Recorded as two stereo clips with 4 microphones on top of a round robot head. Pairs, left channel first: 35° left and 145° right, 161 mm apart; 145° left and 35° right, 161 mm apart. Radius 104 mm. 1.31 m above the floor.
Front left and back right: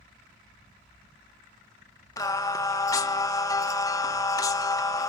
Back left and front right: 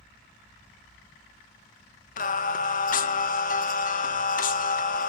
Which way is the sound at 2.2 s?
105° left.